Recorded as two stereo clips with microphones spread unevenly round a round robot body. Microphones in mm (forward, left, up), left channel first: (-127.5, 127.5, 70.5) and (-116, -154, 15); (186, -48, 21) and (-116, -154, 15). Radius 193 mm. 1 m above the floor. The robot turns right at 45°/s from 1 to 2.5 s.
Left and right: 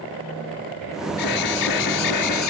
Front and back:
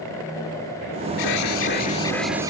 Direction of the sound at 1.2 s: 60° left.